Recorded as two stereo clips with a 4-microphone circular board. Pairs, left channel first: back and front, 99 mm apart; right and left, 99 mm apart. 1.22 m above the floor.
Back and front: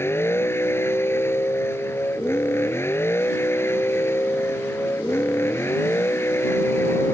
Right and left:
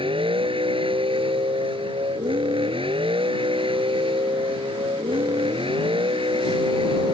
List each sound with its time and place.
0.0 s a vehicle: 115° left